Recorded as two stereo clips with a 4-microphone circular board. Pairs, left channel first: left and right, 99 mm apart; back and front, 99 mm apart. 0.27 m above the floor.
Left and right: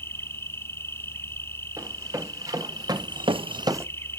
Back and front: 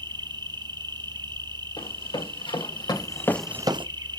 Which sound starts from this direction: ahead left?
An insect, at 0.0 s.